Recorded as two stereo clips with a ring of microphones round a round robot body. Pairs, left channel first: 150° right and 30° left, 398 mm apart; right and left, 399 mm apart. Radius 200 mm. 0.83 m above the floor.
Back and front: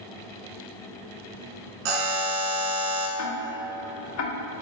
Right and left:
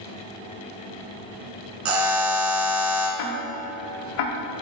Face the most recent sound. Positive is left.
turn(degrees=-95)